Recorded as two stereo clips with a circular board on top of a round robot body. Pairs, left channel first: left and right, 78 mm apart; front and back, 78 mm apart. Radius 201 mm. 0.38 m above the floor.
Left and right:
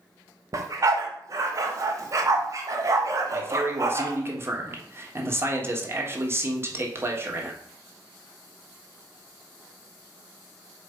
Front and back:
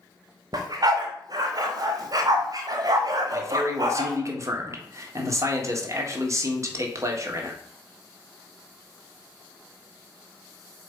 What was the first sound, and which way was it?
A dog barking, 140° right.